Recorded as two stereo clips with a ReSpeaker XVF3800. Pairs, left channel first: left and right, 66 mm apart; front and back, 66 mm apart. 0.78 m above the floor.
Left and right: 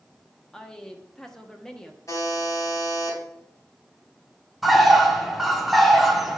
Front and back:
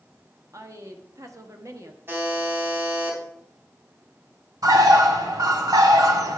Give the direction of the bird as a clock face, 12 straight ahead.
6 o'clock.